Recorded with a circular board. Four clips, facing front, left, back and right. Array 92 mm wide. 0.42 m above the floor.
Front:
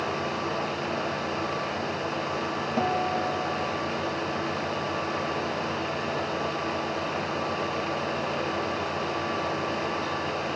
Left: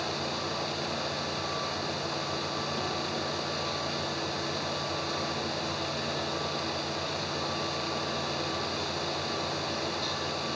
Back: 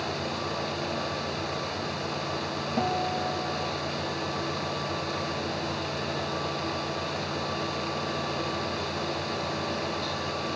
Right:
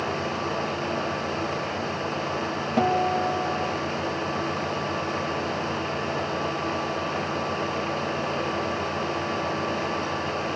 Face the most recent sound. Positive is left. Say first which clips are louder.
# right 11 dB, front 2 dB
turn(degrees=-80)